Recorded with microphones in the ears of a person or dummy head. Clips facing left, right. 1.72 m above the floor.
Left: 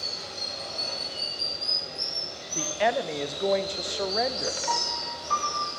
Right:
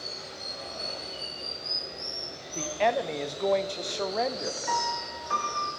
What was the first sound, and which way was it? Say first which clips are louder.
Running water: left 2 dB; 60° left (ahead or behind).